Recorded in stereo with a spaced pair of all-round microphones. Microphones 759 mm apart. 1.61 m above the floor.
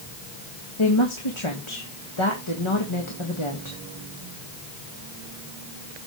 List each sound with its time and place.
0.8 s a woman speaking: 40° left (ahead or behind), 1.9 m